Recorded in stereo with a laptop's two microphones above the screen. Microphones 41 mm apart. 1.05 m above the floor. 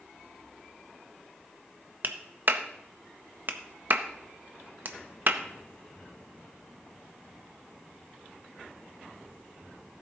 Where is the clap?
50° right (ahead or behind), 0.5 m.